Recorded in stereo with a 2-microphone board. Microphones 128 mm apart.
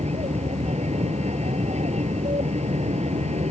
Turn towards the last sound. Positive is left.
turn(degrees=-60)  # may be behind; listen again after turning